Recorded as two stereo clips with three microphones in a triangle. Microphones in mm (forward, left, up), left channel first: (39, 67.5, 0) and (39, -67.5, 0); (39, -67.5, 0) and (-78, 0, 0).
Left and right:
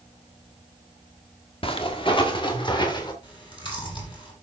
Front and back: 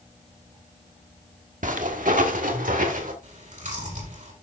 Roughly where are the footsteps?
Behind left.